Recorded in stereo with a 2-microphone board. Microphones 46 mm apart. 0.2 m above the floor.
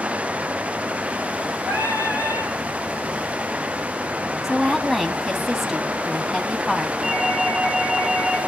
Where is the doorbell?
Centre (ahead or behind), 3.5 m.